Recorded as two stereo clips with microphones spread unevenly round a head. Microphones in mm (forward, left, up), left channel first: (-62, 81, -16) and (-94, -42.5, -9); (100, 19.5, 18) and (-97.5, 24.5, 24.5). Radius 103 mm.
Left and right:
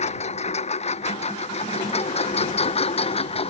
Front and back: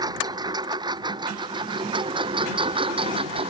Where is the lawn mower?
105° left; by 3.5 s 115° left.